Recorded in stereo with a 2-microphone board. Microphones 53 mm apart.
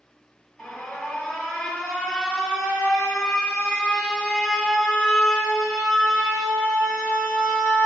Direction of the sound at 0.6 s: 5° left (ahead or behind).